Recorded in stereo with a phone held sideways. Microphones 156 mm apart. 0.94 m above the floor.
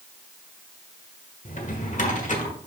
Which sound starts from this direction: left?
A drawer, at 1.4 s.